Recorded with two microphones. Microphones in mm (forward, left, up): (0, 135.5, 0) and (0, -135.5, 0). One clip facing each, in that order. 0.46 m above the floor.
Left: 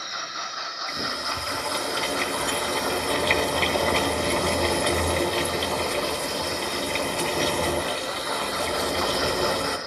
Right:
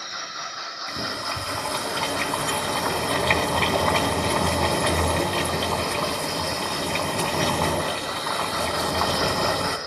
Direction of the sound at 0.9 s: 65° right (ahead or behind).